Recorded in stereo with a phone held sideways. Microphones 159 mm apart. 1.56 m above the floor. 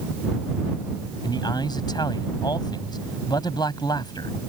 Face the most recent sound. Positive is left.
turn(degrees=25)  # may be behind; listen again after turning